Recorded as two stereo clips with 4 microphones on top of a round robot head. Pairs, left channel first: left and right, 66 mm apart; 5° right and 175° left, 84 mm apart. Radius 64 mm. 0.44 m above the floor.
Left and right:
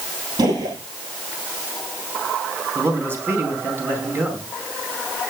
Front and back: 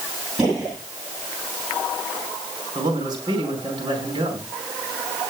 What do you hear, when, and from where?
0.4 s a gunshot: 100° right, 8 m
2.8 s a man speaking: 140° right, 4 m